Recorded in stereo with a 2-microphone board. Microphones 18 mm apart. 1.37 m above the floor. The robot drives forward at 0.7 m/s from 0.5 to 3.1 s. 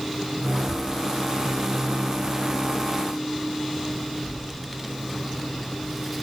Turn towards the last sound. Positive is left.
turn(degrees=5)  # may be behind; listen again after turning